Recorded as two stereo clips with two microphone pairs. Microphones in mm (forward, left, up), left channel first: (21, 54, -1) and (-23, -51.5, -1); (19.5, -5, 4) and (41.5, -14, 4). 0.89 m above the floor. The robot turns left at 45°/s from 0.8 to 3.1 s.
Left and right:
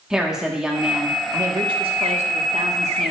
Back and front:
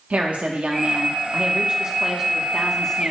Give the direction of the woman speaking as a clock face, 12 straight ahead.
1 o'clock.